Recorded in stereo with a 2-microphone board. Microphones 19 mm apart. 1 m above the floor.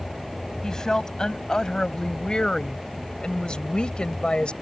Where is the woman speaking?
35° left (ahead or behind); by 4.5 s 60° left (ahead or behind).